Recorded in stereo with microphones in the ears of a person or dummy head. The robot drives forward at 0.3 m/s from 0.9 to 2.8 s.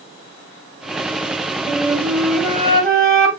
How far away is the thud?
No thud in this recording.